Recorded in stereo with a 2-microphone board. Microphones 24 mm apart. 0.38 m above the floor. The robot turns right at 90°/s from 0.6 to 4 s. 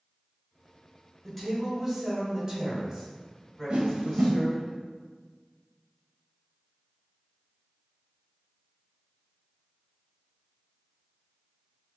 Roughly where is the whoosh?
Right.